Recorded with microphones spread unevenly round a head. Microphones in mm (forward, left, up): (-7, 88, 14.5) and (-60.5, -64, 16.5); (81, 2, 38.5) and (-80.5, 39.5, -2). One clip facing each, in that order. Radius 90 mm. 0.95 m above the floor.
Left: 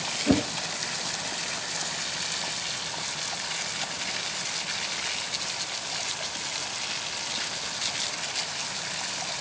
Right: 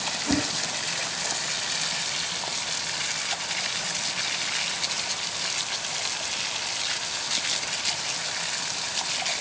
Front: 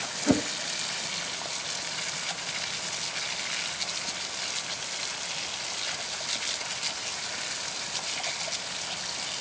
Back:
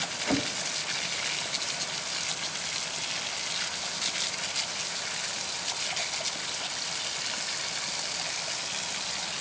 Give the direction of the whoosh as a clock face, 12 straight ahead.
11 o'clock.